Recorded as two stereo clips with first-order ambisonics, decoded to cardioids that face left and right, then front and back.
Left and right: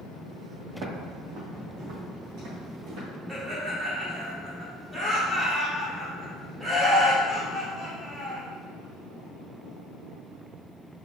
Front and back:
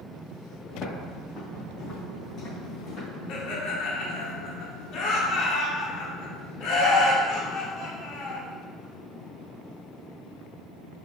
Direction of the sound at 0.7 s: 65° right.